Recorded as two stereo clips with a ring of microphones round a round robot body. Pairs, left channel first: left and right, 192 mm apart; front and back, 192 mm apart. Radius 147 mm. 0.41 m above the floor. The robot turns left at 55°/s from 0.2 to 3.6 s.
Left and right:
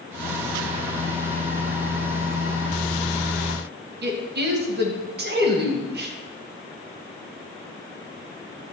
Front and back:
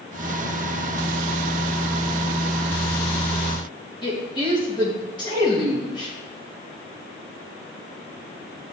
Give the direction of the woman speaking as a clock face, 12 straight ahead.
2 o'clock.